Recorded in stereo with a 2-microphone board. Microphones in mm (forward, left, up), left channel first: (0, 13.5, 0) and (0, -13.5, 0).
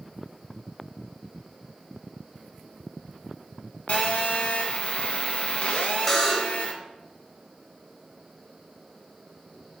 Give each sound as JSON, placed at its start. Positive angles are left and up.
{"t": 3.9, "sound": "a phone buzzing", "side_deg": 55, "distance_m": 0.8}
{"t": 6.1, "sound": "a buzzer", "side_deg": 10, "distance_m": 0.7}